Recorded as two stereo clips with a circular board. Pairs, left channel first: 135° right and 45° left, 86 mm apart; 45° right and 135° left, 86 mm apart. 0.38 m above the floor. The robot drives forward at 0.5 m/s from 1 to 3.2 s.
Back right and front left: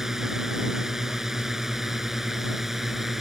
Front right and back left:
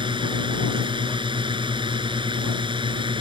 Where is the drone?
130° left.